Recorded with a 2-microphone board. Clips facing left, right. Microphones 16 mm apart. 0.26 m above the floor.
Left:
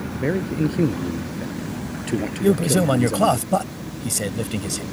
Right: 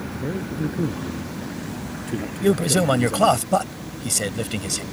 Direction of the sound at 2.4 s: 15° right (ahead or behind).